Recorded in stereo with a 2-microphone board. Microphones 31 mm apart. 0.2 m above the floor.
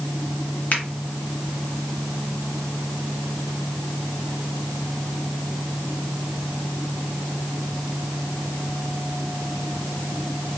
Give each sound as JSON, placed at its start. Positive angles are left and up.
{"t": 0.7, "sound": "a finger snap", "side_deg": 55, "distance_m": 1.9}